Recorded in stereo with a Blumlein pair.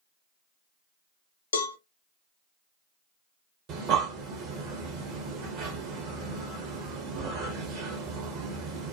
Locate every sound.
1.5 s a cowbell: 65° left, 0.5 m
3.7 s breathing: 40° right, 1.2 m